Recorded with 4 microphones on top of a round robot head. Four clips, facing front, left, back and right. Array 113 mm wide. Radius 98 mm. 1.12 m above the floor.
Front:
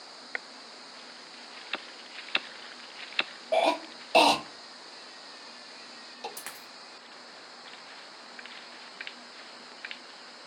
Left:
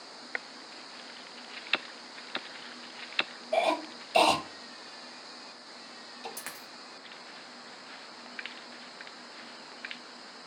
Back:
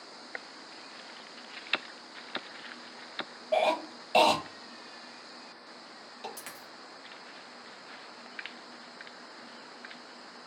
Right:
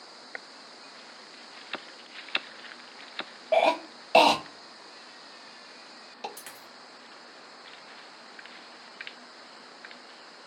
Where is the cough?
75° right, 0.9 m.